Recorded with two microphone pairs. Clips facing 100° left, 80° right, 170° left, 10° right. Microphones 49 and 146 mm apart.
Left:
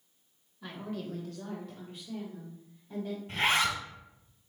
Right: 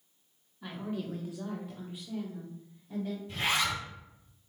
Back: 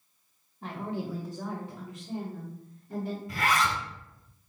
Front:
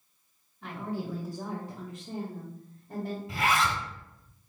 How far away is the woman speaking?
About 1.3 m.